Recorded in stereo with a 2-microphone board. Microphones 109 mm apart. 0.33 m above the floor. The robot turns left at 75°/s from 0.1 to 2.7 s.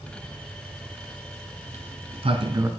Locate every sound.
1.6 s a sliding door: 70° right (ahead or behind), 1.2 m; by 2.7 s 25° right (ahead or behind), 1.2 m